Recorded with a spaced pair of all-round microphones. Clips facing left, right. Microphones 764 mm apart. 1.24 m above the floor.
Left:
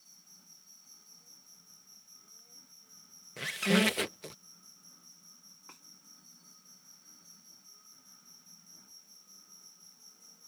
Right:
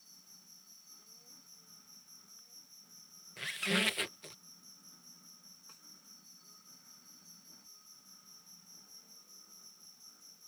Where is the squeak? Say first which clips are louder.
Left 9 dB; 70° left (ahead or behind).